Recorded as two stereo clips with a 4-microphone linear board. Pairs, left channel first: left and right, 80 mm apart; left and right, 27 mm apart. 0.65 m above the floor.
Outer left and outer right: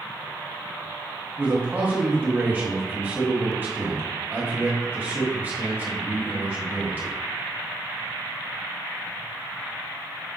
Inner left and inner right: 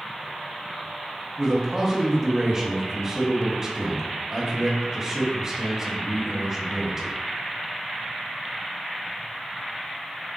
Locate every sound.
1.4 s a man speaking: 20° right (ahead or behind), 1.0 m